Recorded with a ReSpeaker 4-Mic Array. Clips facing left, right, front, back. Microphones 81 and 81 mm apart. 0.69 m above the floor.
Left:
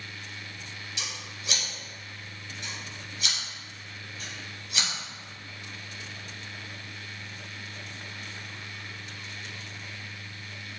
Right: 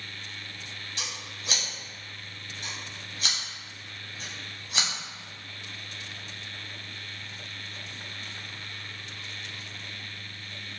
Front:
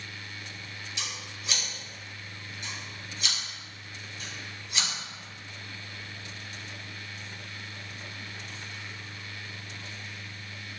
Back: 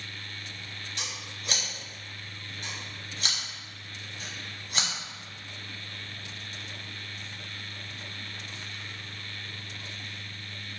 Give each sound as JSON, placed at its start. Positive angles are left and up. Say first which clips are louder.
{"t": 1.0, "sound": "scissors", "louder": "right 1 dB, even", "azimuth_deg": -140, "distance_m": 1.3}